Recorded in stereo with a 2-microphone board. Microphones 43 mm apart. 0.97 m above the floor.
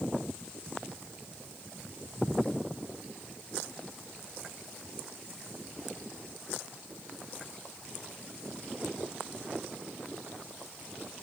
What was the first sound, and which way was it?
Only background noise.